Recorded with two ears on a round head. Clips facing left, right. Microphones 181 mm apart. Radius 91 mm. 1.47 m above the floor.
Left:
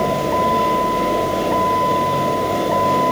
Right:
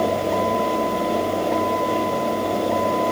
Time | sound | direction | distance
0.0 | a vehicle | 65° left (ahead or behind) | ?